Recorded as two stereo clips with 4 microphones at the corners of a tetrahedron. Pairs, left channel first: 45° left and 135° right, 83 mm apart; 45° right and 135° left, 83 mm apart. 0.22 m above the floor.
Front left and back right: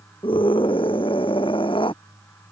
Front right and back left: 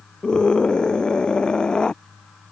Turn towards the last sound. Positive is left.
turn(degrees=35)